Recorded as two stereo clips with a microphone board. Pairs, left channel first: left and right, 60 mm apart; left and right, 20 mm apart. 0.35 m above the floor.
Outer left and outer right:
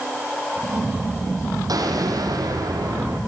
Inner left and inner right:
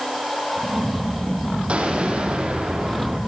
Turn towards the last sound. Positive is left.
turn(degrees=-85)